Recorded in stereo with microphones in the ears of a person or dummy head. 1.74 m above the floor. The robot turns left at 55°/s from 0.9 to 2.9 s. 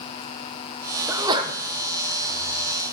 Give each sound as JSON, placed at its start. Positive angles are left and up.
{"t": 1.1, "sound": "a sneeze", "side_deg": -10, "distance_m": 0.9}